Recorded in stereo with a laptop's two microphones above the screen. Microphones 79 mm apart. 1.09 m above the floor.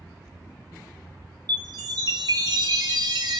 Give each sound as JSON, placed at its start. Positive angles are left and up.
{"t": 1.5, "sound": "a chime", "side_deg": -55, "distance_m": 1.0}